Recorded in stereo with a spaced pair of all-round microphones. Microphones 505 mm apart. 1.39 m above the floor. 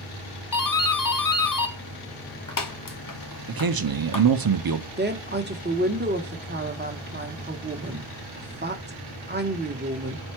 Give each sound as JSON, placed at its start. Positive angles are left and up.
{"t": 0.5, "sound": "a doorbell", "side_deg": 40, "distance_m": 0.5}
{"t": 3.5, "sound": "a man speaking", "side_deg": -45, "distance_m": 0.5}
{"t": 5.0, "sound": "a woman speaking", "side_deg": -20, "distance_m": 0.8}